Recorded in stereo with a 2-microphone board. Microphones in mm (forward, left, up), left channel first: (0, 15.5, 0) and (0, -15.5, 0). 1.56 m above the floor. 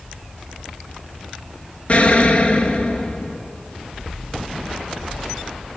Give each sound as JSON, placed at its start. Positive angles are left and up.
{"t": 1.9, "sound": "an explosion", "side_deg": 40, "distance_m": 1.1}